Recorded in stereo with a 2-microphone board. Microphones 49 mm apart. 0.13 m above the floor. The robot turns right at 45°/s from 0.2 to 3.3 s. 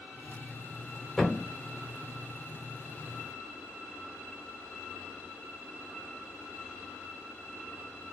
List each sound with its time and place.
1.2 s a thud: 5° left (ahead or behind), 0.8 m; by 1.5 s 20° left (ahead or behind), 0.8 m